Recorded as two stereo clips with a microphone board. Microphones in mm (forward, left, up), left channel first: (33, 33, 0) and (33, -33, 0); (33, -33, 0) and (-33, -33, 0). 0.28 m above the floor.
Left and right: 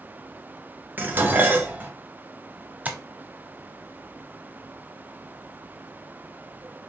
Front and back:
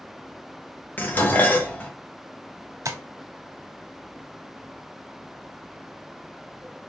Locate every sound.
1.0 s dishes clattering: 50° right, 0.8 m
2.9 s tapping: 150° right, 0.7 m